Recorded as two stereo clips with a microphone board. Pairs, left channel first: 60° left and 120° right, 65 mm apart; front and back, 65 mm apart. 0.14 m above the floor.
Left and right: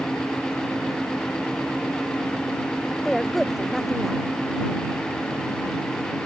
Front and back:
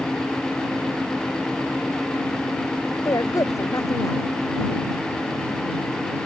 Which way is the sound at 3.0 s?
30° right.